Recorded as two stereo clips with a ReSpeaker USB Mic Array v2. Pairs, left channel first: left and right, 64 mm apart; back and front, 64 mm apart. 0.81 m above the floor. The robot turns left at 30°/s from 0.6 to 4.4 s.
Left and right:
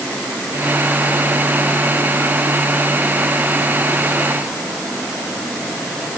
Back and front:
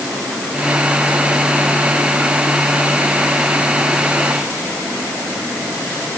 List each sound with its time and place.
Only background noise.